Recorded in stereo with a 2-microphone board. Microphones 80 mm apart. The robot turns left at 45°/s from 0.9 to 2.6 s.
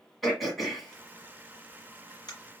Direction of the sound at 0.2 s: Centre (ahead or behind).